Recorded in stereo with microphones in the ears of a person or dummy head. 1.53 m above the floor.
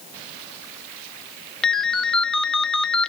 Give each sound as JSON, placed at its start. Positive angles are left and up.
{"t": 1.6, "sound": "a ringtone", "side_deg": 10, "distance_m": 0.9}